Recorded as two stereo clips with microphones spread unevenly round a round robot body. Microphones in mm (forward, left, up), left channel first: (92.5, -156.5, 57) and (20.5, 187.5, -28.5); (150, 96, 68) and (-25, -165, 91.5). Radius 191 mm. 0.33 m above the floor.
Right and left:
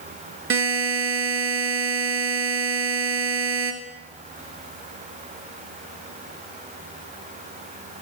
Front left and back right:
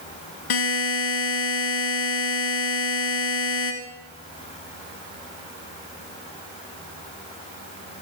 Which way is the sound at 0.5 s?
45° left.